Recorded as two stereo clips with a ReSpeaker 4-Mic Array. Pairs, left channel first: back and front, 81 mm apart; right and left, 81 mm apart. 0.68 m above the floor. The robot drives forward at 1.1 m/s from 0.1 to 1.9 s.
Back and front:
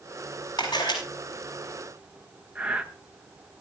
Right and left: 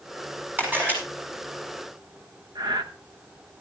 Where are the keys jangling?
I don't hear keys jangling.